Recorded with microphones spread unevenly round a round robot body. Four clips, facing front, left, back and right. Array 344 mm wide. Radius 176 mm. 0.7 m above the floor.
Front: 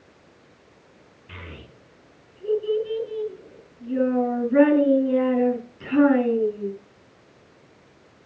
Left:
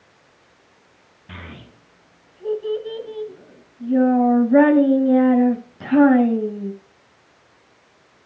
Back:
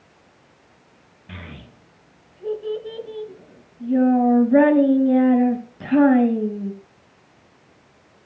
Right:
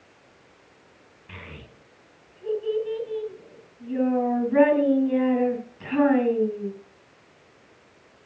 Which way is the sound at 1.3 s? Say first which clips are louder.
Left 4 dB, back 2 dB; 140° left.